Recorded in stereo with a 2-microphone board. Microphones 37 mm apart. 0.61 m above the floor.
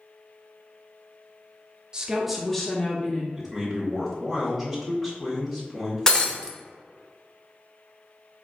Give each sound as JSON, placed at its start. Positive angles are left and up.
{"t": 1.9, "sound": "a woman speaking", "side_deg": -20, "distance_m": 0.6}
{"t": 3.4, "sound": "a man speaking", "side_deg": 5, "distance_m": 1.7}
{"t": 6.1, "sound": "breaking glass", "side_deg": 20, "distance_m": 0.5}